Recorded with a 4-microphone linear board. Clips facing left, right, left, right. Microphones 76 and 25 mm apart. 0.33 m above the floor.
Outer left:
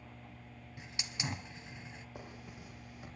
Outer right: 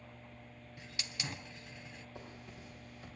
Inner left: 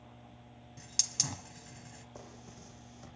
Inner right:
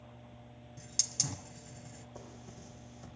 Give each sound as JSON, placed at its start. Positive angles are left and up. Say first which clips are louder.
{"t": 0.8, "sound": "a hiss", "louder": "outer left 2 dB, inner left 2 dB", "side_deg": 20, "distance_m": 1.2}
{"t": 2.1, "sound": "a zipper", "louder": "outer left 1 dB, inner right 1 dB", "side_deg": 15, "distance_m": 5.0}